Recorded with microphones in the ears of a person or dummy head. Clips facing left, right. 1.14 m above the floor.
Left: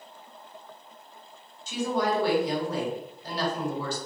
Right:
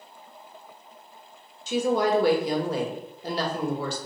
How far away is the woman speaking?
About 1.2 m.